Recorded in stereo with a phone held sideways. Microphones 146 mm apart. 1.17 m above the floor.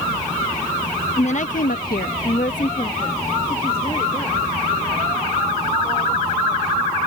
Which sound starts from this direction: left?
A woman speaking, at 1.2 s.